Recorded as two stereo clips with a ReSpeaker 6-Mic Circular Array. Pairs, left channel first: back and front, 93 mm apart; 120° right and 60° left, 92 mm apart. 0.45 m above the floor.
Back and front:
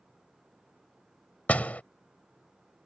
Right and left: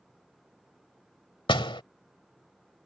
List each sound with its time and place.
1.5 s a door slam: 105° right